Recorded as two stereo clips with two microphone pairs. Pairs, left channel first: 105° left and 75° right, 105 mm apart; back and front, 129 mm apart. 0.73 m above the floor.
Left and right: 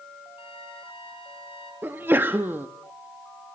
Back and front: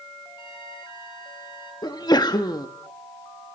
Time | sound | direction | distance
0.4 | a flute | 130° left | 7 m
1.8 | a sneeze | 140° right | 1.3 m